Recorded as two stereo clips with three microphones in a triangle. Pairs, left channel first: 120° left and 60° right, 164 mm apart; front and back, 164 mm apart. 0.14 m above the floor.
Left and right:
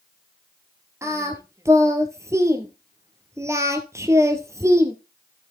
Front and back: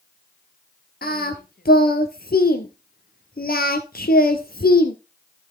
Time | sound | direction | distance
1.0 | singing | 10° left | 1.2 m